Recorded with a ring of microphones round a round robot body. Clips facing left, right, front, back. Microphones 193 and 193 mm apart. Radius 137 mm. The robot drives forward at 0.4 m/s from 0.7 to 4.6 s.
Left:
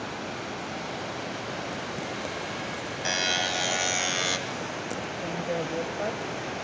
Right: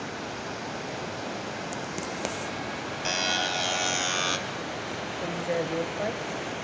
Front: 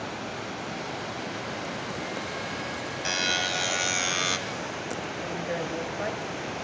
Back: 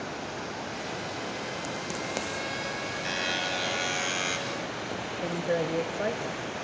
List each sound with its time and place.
3.0 s a buzzer: 15° left, 1.9 m; by 4.4 s 25° left, 1.5 m
5.2 s a woman speaking: 170° right, 1.1 m